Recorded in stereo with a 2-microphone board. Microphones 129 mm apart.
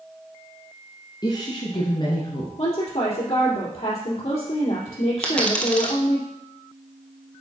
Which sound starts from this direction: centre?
A dropped coin, at 5.2 s.